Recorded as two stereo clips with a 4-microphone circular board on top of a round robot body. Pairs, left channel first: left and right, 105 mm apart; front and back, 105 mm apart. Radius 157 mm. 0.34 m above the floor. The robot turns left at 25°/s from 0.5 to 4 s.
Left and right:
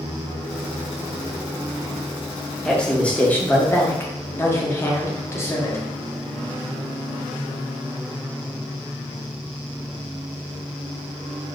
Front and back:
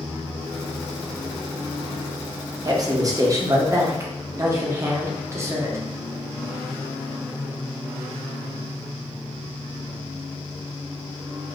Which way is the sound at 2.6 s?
170° left.